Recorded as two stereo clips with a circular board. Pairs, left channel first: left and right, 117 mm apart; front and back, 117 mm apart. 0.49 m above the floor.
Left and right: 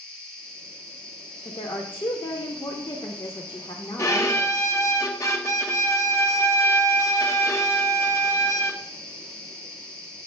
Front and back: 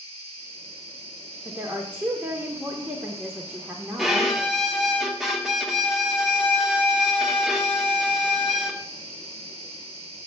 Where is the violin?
95° left, 1.0 m.